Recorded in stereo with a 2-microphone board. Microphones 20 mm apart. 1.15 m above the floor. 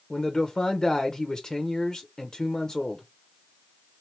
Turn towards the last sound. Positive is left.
turn(degrees=30)  # may be behind; listen again after turning